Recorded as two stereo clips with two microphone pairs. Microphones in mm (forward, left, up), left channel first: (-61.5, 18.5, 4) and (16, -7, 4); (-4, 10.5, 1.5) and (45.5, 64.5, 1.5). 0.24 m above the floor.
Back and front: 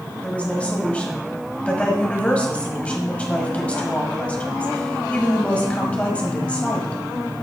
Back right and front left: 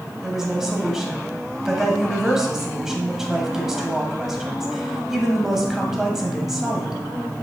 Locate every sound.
0.2 s a woman speaking: 120° left, 1.4 m